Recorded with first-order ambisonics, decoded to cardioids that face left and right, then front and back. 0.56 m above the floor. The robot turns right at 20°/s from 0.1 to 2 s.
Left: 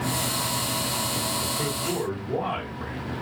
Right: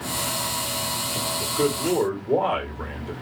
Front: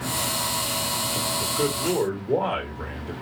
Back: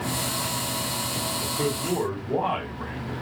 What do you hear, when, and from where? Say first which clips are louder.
1.4 s a man speaking: right 4 dB, front 2 dB; 65° right, 2.5 m; by 3.1 s 50° right, 2.5 m